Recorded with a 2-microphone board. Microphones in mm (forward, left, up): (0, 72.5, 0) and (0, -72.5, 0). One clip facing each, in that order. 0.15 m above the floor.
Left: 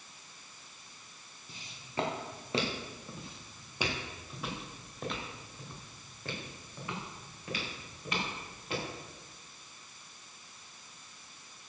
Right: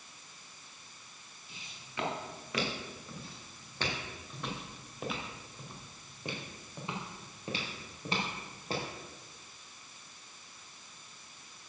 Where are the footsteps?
45° left (ahead or behind), 3.5 m; by 8.9 s 35° right (ahead or behind), 5 m.